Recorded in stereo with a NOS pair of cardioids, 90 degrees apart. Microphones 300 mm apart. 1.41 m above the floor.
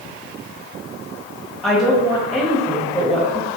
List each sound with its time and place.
1.6 s a woman speaking: straight ahead, 0.8 m